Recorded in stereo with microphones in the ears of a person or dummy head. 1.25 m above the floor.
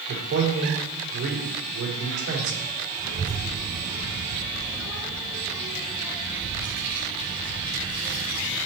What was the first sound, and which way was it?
A man speaking, 80° right.